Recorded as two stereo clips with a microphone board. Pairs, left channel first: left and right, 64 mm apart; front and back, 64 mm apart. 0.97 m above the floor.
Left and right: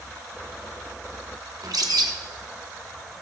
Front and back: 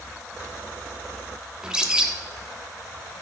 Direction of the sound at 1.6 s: 105° right.